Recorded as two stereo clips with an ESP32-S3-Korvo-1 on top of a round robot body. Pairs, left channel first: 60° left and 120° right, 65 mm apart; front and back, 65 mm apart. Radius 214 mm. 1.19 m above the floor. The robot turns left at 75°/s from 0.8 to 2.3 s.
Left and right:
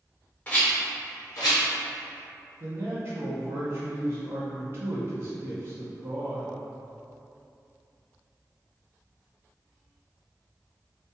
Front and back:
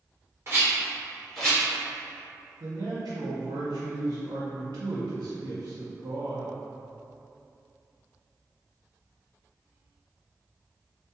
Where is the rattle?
130° left, 0.7 m; by 1.6 s 70° left, 0.7 m.